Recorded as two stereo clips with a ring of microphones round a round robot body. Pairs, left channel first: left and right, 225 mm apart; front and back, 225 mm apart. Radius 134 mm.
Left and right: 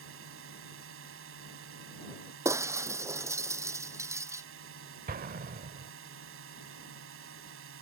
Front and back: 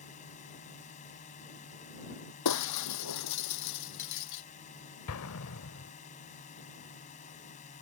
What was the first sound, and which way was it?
A drone, 60° right.